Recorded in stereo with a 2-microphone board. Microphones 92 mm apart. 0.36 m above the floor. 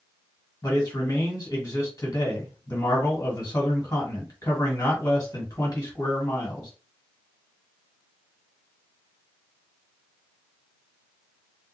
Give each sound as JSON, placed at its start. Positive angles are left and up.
{"t": 0.6, "sound": "a man speaking", "side_deg": 35, "distance_m": 1.6}